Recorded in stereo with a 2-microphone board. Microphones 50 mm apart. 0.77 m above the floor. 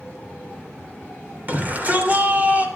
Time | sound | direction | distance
1.5 | a shout | 30° right (ahead or behind) | 2.5 m